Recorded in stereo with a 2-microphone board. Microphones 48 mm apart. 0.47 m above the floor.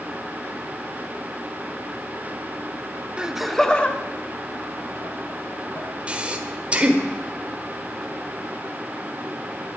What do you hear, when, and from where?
3.2 s laughter: 20° right (ahead or behind), 0.7 m; by 5.9 s 55° left (ahead or behind), 2.5 m
6.1 s breathing: 25° right (ahead or behind), 1.2 m